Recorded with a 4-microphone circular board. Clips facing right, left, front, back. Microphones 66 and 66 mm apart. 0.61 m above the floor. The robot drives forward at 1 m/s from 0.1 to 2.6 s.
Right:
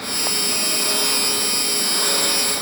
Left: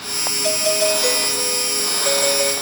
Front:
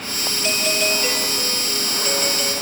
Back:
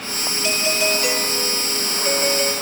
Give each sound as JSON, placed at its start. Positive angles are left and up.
{"t": 0.4, "sound": "a doorbell", "azimuth_deg": 95, "distance_m": 3.0}